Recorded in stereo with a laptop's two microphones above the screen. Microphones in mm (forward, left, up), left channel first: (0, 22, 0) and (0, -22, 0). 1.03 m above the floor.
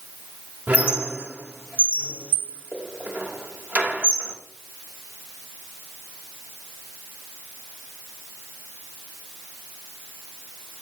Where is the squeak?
40° right (ahead or behind), 0.9 m.